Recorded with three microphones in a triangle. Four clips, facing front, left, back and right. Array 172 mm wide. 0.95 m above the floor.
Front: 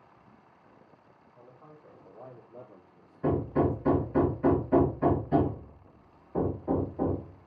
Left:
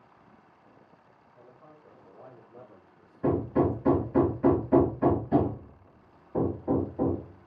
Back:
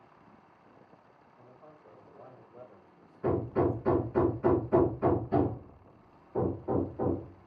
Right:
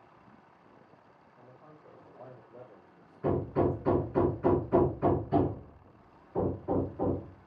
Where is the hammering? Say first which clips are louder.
Left 3 dB, front 1 dB; 60° left, 3 m.